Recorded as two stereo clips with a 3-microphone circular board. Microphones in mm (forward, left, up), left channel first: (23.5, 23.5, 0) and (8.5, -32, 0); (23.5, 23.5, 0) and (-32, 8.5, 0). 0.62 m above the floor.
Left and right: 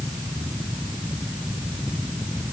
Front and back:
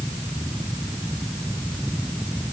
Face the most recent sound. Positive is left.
No sound to turn to.